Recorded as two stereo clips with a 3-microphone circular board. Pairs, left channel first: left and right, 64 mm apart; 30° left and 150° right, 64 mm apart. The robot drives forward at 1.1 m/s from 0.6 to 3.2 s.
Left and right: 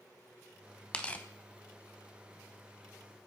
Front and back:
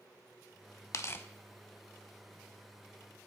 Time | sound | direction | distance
0.9 | tearing paper | 20° left | 0.7 m